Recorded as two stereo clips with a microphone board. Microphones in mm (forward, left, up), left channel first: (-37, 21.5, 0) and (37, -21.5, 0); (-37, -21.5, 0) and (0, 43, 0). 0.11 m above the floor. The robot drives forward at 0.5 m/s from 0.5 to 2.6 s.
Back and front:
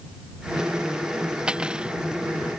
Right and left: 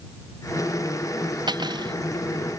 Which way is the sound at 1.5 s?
50° left.